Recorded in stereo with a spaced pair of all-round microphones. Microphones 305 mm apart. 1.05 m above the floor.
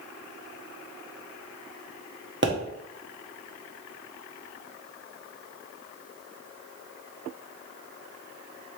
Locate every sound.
2.4 s a pop: 40° right (ahead or behind), 0.8 m